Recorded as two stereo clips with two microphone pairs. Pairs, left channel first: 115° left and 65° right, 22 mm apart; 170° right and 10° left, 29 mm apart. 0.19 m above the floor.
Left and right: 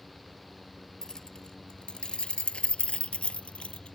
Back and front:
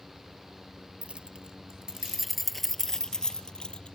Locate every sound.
1.0 s keys jangling: 60° left; by 4.0 s 140° left